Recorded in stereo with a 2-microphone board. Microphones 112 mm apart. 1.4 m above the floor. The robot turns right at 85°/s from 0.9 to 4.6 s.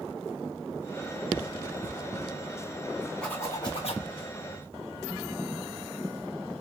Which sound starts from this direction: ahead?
A zipper, at 3.2 s.